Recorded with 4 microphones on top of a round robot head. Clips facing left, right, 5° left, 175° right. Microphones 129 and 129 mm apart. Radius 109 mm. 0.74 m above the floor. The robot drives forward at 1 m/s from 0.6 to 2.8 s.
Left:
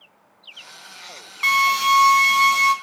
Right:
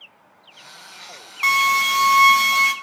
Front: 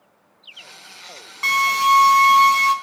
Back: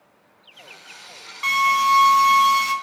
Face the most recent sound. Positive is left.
turn(degrees=-110)